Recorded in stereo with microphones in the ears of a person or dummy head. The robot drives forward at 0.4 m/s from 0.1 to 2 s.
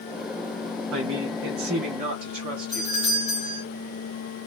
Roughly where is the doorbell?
Centre.